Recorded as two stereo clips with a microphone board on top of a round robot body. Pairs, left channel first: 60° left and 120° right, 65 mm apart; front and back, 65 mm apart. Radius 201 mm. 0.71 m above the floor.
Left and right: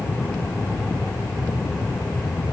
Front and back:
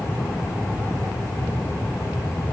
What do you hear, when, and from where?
Only background noise.